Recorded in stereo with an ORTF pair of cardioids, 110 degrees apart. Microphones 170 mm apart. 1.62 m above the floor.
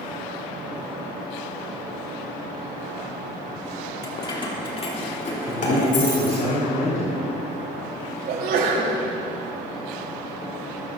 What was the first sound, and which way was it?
Keys jangling, 20° left.